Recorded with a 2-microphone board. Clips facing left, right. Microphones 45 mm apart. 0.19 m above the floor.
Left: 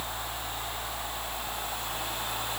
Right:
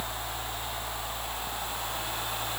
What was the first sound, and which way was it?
Only background noise.